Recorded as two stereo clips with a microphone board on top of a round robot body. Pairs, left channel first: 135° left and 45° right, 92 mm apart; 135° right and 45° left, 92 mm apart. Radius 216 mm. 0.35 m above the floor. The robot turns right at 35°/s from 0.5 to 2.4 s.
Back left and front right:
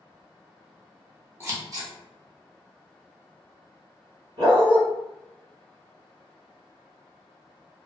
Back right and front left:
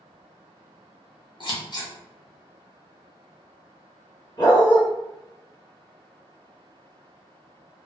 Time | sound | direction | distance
1.4 | scissors | 105° right | 1.1 m
4.4 | a dog barking | 85° right | 1.3 m